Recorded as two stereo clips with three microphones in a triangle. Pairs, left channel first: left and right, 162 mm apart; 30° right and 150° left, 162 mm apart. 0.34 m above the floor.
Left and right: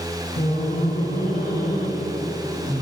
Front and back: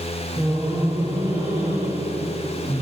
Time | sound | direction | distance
0.4 | laughter | 75° left | 2.5 m